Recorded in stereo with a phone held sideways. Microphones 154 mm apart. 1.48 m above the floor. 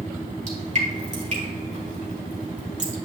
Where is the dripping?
50° right (ahead or behind), 3 m.